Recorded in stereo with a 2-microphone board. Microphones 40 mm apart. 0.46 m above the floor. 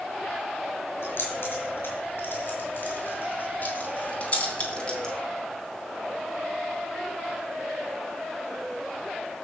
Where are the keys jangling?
65° left (ahead or behind), 5.5 m; by 5.2 s 15° left (ahead or behind), 2.5 m.